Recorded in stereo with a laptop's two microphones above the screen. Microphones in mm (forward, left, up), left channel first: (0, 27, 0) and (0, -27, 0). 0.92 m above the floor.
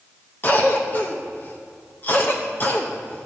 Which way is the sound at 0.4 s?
35° left (ahead or behind).